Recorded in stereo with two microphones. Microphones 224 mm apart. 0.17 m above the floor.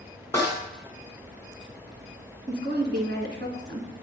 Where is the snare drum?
10° left (ahead or behind), 1.6 m.